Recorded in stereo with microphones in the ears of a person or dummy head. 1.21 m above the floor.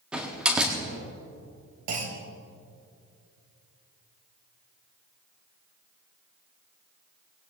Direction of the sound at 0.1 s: 5° right (ahead or behind).